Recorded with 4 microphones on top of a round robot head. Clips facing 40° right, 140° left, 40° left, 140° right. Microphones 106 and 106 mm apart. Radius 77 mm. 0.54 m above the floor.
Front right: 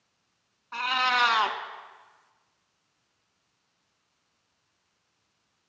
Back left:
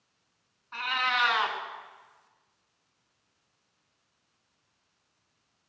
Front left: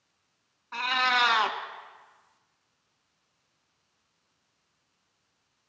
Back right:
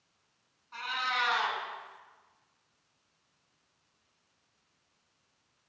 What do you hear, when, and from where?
0.7 s a cat meowing: 10° left, 1.0 m